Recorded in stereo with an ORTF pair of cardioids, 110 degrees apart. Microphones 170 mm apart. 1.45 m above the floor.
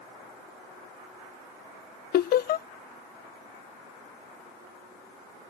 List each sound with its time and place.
2.1 s laughter: 60° left